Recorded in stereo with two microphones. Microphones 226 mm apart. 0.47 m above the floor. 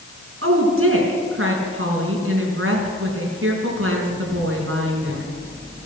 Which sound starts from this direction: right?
A woman speaking, at 0.4 s.